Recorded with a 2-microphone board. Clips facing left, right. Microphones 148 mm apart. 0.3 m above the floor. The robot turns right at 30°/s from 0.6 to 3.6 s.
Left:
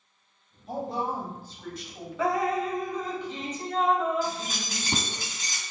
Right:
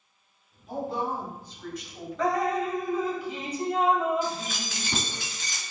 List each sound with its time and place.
0.7 s a woman speaking: 100° left, 1.5 m; by 2.1 s 145° left, 1.5 m
2.2 s dripping: 5° left (ahead or behind), 0.5 m; by 5.2 s 10° right (ahead or behind), 0.5 m
4.2 s keys jangling: 35° left (ahead or behind), 1.6 m